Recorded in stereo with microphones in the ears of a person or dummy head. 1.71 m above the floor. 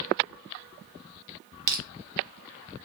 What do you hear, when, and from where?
1.7 s crushing: 45° right (ahead or behind), 1.4 m